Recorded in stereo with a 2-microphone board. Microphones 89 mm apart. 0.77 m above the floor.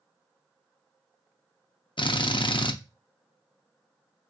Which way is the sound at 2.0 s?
70° left (ahead or behind).